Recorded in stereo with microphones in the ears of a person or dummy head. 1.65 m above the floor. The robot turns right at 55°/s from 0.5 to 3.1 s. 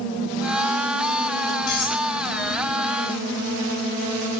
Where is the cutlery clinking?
55° left (ahead or behind), 2.5 m; by 2.0 s 40° left (ahead or behind), 2.5 m.